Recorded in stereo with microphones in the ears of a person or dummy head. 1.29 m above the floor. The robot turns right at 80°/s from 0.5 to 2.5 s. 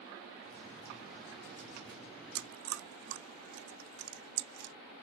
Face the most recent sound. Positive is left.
turn(degrees=-80)